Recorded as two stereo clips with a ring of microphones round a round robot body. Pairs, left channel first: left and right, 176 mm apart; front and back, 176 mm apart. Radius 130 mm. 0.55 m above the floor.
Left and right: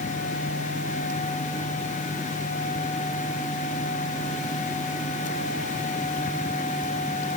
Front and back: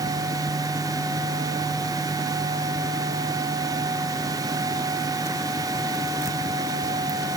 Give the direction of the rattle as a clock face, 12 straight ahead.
No rattle in this recording.